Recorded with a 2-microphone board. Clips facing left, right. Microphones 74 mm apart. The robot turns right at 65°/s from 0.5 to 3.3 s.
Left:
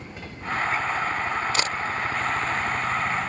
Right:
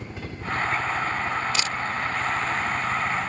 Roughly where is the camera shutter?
Left.